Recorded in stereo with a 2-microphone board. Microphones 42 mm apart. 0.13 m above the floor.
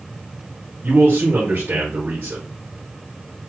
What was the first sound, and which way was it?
A man speaking, 50° right (ahead or behind).